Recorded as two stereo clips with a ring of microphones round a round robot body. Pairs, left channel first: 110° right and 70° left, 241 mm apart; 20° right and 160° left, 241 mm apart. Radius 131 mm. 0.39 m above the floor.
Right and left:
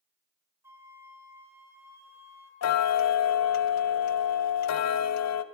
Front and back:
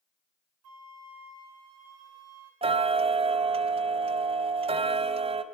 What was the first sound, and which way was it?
A flute, 150° left.